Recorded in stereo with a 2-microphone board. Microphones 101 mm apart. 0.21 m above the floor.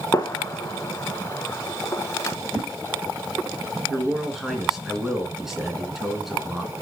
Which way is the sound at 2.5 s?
35° right (ahead or behind).